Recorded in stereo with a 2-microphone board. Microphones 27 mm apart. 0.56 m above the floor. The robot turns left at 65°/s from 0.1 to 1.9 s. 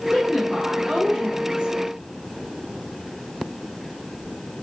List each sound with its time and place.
0.1 s a woman speaking: 15° right, 1.3 m; by 1.7 s 120° right, 1.3 m